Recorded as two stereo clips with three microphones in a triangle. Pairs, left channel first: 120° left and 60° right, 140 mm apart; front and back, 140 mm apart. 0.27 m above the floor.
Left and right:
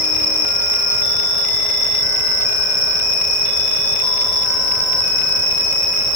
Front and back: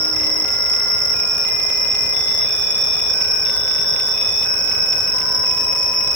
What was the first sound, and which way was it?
An insect, 35° right.